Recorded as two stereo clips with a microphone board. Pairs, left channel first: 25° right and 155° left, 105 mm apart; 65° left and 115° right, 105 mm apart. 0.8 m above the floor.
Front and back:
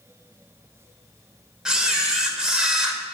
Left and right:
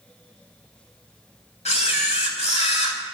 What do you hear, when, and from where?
1.6 s a camera shutter: 75° left, 1.7 m